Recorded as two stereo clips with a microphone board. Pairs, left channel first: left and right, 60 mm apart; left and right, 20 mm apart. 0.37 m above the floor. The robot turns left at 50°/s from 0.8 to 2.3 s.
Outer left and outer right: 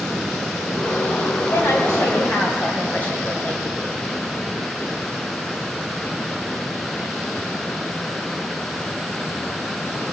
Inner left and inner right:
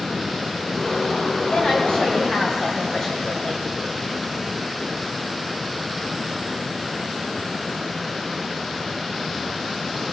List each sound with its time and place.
1.5 s a woman speaking: 70° left, 3 m; by 3.6 s 30° left, 3 m